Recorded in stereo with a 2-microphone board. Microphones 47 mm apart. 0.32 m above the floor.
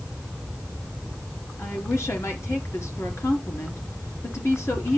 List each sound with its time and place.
1.6 s a woman speaking: 75° left (ahead or behind), 4 m